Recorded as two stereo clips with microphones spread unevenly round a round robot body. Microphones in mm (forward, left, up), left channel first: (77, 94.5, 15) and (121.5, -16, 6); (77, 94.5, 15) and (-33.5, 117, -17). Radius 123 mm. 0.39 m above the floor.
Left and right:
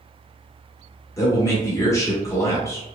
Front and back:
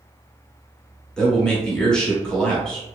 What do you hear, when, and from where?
1.2 s a man speaking: 110° left, 0.8 m